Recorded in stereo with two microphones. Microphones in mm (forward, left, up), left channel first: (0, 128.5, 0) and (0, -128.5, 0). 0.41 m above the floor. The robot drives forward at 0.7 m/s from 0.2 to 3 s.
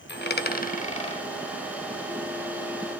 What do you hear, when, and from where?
0.1 s a dropped coin: 45° left (ahead or behind), 0.5 m; by 1.2 s 20° left (ahead or behind), 0.9 m